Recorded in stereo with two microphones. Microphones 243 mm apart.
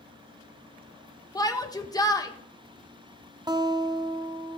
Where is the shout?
15° left (ahead or behind), 0.7 m.